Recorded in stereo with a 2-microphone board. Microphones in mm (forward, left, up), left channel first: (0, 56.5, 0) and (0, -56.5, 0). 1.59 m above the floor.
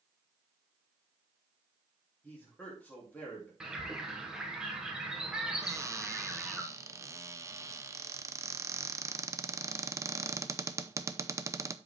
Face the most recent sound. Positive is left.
turn(degrees=-25)  # may be behind; listen again after turning